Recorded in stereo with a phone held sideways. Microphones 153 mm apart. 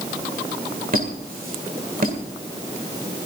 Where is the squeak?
60° right (ahead or behind), 2 m.